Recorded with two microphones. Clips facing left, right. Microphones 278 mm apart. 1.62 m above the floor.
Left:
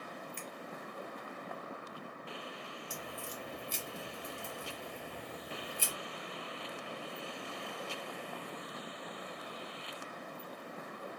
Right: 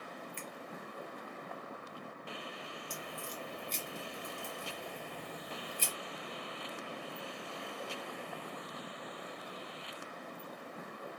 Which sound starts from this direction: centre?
A crack, at 2.9 s.